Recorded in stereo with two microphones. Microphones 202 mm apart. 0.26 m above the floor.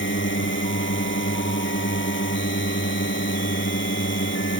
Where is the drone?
70° left (ahead or behind).